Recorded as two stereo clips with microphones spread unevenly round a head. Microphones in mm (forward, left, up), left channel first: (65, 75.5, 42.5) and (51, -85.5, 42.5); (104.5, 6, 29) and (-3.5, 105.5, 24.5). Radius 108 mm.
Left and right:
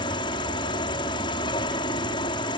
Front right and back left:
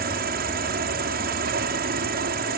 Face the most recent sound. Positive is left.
turn(degrees=150)